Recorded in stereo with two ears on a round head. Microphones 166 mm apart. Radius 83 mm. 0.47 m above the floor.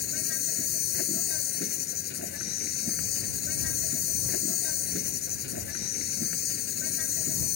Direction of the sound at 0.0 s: 60° left (ahead or behind).